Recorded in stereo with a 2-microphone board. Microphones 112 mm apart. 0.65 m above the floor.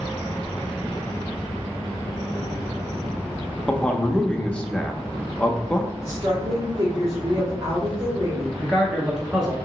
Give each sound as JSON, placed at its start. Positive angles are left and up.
{"t": 3.7, "sound": "a man speaking", "side_deg": 10, "distance_m": 0.6}
{"t": 6.0, "sound": "a woman speaking", "side_deg": -30, "distance_m": 1.2}
{"t": 8.6, "sound": "a man speaking", "side_deg": -5, "distance_m": 0.8}